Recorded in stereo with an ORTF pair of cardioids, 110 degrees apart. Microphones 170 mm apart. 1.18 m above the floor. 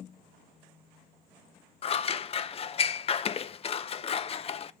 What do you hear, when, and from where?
1.8 s scissors: 35° left, 0.5 m